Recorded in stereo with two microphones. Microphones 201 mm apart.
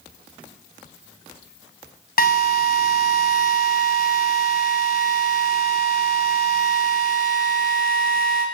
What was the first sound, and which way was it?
A drill, 45° left (ahead or behind).